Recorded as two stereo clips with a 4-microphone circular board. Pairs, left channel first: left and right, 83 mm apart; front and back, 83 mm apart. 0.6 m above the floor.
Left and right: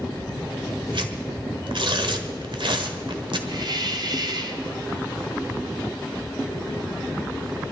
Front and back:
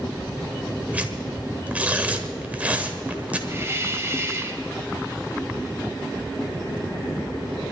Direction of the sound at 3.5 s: 120° right.